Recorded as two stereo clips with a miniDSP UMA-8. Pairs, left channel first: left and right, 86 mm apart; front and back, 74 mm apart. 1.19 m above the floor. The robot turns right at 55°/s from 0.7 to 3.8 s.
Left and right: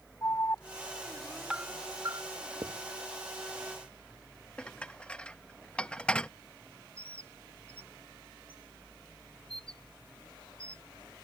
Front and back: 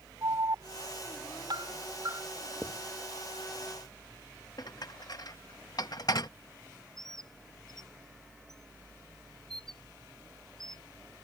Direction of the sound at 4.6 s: 15° left.